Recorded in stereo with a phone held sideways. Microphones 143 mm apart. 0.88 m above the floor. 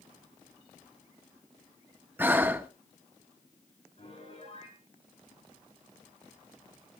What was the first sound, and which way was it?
Breathing, 15° right (ahead or behind).